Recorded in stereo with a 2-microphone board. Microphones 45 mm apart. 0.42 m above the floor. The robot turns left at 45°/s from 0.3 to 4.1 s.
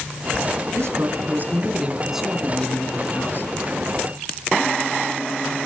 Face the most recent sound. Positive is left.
turn(degrees=100)